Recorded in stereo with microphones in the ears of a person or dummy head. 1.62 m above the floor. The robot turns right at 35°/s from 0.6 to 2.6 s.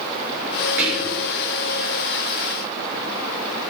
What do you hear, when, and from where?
0.8 s whispering: 10° right (ahead or behind), 4 m; by 1.3 s 5° left (ahead or behind), 4 m